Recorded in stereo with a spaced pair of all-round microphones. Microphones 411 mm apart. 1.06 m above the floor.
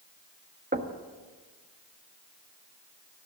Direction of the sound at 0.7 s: 25° right (ahead or behind).